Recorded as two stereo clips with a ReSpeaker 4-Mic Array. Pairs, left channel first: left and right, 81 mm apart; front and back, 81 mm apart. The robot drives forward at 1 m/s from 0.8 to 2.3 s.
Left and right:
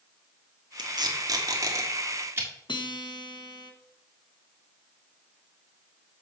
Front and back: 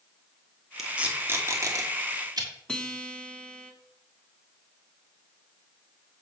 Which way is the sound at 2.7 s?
80° left.